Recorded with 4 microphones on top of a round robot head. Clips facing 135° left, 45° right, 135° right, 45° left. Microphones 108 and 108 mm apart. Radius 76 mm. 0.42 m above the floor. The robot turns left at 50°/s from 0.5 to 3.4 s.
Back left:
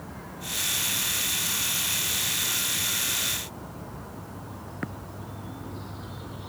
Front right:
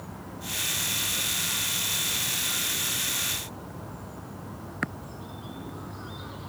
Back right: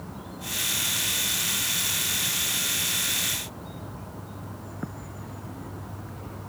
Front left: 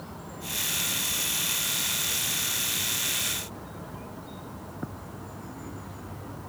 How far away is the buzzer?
I don't hear a buzzer.